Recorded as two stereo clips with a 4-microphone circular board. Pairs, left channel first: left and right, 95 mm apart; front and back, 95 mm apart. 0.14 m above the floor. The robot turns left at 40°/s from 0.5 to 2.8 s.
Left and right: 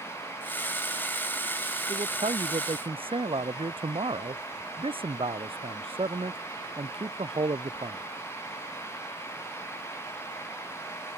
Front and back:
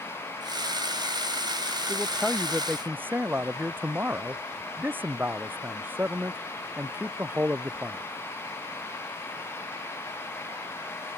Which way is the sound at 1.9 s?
75° right.